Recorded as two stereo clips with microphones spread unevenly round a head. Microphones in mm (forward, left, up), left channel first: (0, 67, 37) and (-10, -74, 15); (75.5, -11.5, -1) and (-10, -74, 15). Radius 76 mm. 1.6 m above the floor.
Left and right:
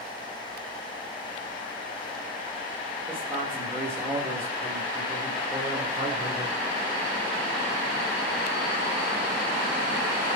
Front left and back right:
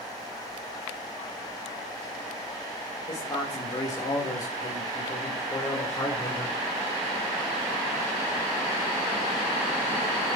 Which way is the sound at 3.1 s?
15° right.